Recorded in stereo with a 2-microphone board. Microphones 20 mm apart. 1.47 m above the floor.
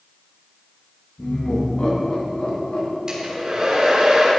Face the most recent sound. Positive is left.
turn(degrees=-35)  # may be behind; listen again after turning